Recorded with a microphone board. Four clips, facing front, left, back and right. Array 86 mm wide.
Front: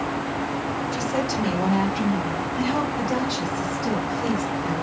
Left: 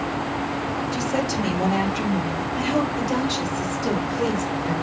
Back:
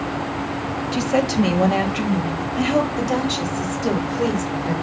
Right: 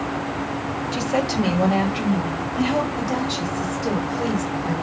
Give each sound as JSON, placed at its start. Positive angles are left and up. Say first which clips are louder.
{"t": 0.9, "sound": "a woman speaking", "louder": "right 4 dB, back 8 dB", "azimuth_deg": -150, "distance_m": 2.0}